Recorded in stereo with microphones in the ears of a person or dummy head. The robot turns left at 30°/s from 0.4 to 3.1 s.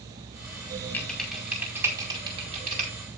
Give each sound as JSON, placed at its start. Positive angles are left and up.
{"t": 0.9, "sound": "typing on a keyboard", "side_deg": 10, "distance_m": 4.5}